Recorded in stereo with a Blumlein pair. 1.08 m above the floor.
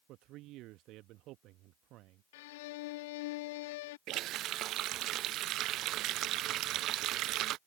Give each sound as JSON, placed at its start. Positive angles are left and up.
{"t": 0.1, "sound": "a man speaking", "azimuth_deg": -40}
{"t": 2.3, "sound": "a violin", "azimuth_deg": 50}
{"t": 4.1, "sound": "a running tap", "azimuth_deg": -35}